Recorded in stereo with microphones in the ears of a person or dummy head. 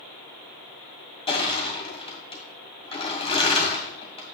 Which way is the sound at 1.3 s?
30° left (ahead or behind).